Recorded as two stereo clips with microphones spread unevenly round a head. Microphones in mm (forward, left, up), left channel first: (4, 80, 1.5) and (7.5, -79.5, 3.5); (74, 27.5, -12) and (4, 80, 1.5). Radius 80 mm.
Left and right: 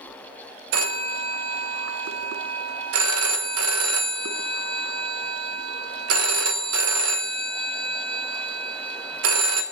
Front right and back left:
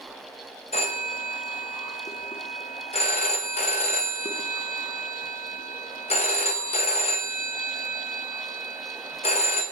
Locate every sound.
0.7 s a phone ringing: 90° right, 0.8 m